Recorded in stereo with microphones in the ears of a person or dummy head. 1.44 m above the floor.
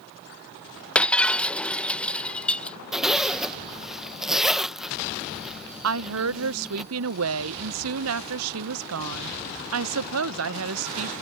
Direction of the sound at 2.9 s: Centre (ahead or behind).